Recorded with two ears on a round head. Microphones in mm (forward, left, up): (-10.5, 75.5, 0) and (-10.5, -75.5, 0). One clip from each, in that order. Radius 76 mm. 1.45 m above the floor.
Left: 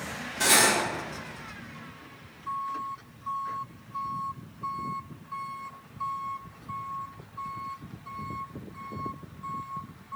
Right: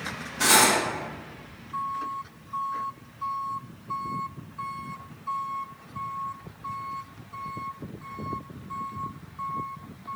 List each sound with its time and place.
0.4 s cutlery clinking: 10° left (ahead or behind), 0.8 m